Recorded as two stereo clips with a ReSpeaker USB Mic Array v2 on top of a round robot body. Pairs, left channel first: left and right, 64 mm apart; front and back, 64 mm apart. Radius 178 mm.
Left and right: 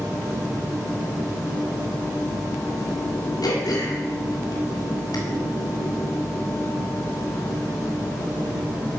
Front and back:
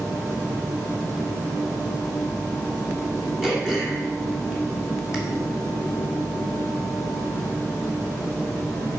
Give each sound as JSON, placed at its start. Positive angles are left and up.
{"t": 3.4, "sound": "throat clearing", "azimuth_deg": 100, "distance_m": 2.5}